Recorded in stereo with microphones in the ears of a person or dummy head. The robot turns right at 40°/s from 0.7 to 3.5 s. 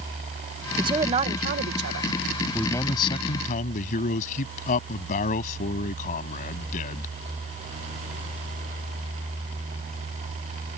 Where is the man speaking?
5° left; by 7.2 s 45° left.